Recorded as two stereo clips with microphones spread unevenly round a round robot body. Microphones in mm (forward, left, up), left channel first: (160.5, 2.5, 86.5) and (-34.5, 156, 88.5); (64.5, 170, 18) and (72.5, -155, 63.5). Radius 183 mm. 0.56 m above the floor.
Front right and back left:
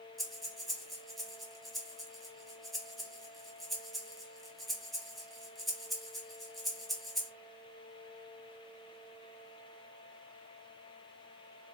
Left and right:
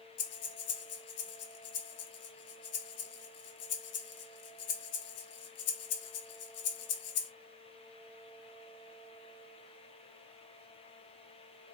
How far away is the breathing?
About 0.5 m.